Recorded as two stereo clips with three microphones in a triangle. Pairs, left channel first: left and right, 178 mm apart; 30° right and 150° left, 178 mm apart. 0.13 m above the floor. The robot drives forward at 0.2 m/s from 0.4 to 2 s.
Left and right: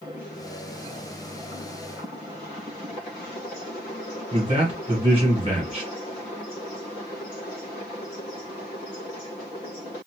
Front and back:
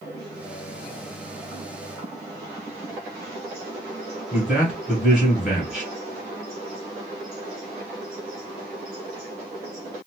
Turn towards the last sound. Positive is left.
turn(degrees=-125)